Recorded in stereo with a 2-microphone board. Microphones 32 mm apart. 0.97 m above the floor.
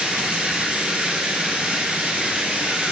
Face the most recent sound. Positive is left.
turn(degrees=-50)  # may be behind; listen again after turning